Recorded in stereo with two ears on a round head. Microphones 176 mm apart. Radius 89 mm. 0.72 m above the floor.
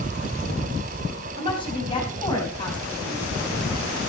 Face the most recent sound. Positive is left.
turn(degrees=25)  # may be behind; listen again after turning